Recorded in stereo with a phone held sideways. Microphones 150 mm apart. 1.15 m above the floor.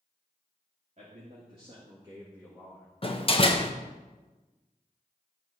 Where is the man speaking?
50° right (ahead or behind), 2 m; by 2.9 s centre (ahead or behind), 1.8 m.